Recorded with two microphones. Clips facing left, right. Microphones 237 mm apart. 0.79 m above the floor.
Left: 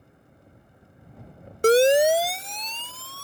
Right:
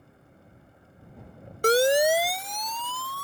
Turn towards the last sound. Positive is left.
turn(degrees=30)  # may be behind; listen again after turning